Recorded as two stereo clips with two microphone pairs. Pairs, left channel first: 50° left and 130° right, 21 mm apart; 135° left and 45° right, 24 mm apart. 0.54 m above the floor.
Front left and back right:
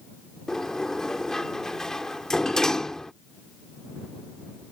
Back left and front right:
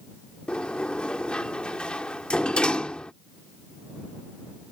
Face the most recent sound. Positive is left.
turn(degrees=105)